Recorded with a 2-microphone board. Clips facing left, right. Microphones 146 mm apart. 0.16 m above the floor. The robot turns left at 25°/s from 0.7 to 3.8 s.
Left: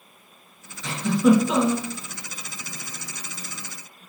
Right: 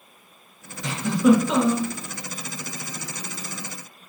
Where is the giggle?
15° right (ahead or behind), 2 m; by 1.9 s 5° left (ahead or behind), 2 m.